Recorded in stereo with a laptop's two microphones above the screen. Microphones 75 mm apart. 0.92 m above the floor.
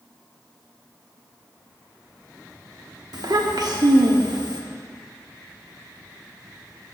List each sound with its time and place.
3.1 s a child speaking: 65° right (ahead or behind), 0.9 m